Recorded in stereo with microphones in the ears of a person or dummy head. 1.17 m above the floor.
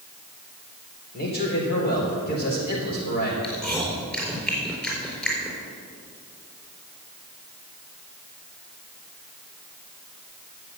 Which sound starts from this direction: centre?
Chewing, at 3.4 s.